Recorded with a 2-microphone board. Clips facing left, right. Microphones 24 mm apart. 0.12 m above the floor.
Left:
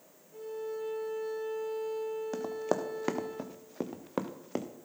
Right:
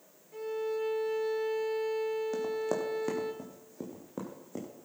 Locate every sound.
0.3 s a violin: 50° right (ahead or behind), 1.6 m
2.3 s running footsteps: 25° left (ahead or behind), 1.6 m; by 4.7 s 85° left, 1.9 m